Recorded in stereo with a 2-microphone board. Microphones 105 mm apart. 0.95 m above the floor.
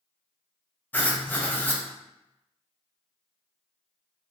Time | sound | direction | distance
0.9 | writing | 15° left (ahead or behind) | 0.6 m